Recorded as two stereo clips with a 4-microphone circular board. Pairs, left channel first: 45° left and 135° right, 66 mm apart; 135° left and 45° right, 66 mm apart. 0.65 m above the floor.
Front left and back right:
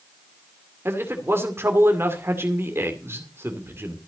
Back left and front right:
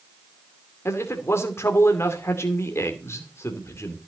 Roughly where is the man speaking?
Behind.